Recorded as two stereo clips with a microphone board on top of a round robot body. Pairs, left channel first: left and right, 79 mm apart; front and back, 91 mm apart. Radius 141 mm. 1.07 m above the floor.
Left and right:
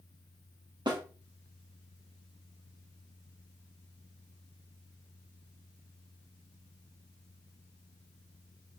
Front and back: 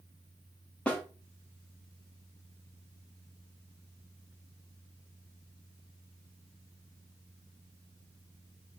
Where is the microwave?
I don't hear a microwave.